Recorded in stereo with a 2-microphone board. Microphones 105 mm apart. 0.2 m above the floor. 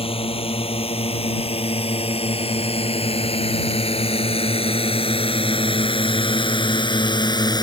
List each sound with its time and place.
0.0 s a drone: 65° left (ahead or behind); by 7.6 s 40° left (ahead or behind)